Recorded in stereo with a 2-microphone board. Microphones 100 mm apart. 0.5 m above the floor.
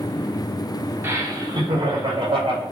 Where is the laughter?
20° right (ahead or behind), 0.7 m; by 2.6 s 65° right (ahead or behind), 1.7 m.